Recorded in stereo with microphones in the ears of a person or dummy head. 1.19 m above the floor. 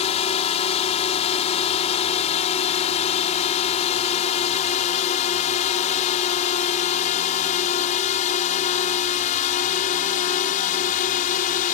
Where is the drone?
35° left (ahead or behind); by 11.8 s 45° left (ahead or behind).